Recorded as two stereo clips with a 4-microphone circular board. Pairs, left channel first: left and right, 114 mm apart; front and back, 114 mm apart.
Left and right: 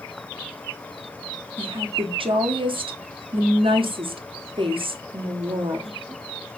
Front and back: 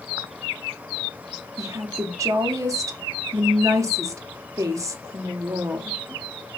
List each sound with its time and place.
1.6 s a woman speaking: 120° right, 0.6 m